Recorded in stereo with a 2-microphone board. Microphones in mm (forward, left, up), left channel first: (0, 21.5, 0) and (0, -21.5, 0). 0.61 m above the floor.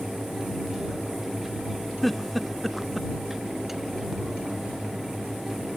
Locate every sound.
2.0 s a giggle: 5° left (ahead or behind)